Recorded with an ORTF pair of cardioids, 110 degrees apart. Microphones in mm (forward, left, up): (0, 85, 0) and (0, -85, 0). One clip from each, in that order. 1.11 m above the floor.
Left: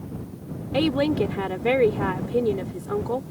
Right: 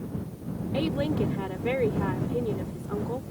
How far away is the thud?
I don't hear a thud.